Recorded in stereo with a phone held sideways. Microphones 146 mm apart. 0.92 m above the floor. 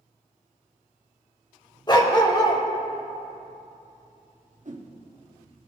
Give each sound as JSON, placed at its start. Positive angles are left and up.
{"t": 1.9, "sound": "a dog barking", "side_deg": 30, "distance_m": 1.1}
{"t": 4.7, "sound": "a whoosh", "side_deg": -60, "distance_m": 1.0}